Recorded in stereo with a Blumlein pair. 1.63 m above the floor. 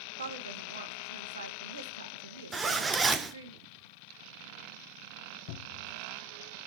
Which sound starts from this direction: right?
A woman speaking, at 0.2 s.